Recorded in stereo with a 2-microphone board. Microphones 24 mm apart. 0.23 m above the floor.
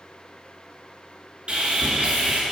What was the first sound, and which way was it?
Sawing, 45° right (ahead or behind).